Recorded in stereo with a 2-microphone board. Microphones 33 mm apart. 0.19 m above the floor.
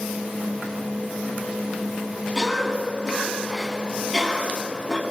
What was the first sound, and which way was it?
A cough, 15° right (ahead or behind).